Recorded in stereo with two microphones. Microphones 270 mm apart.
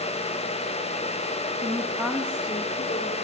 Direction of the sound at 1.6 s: 25° right (ahead or behind).